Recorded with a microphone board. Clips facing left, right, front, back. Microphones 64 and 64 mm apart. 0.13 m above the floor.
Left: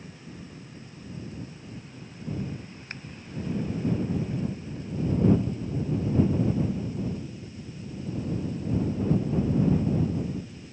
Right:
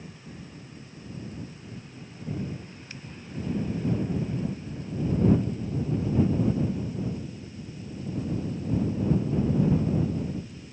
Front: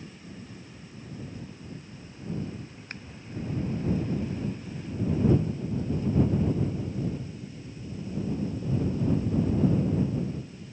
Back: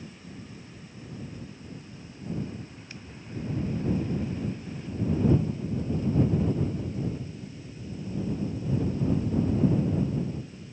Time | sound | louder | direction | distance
2.9 | scissors | left 5 dB, front 3 dB | 45° left | ?